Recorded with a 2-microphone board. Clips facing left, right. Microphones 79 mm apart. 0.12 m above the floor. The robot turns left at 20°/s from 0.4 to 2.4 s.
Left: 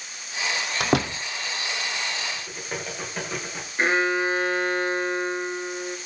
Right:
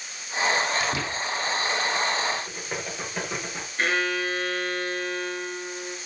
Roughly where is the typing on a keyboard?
Centre.